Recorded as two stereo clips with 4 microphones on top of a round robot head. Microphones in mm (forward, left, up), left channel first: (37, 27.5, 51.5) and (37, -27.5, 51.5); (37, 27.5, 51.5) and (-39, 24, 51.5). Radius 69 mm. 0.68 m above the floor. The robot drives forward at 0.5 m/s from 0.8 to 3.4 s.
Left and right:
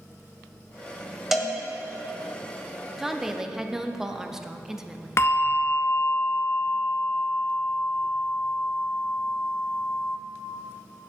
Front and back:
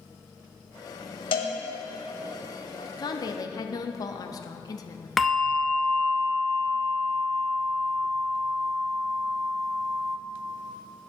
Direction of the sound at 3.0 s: 10° right.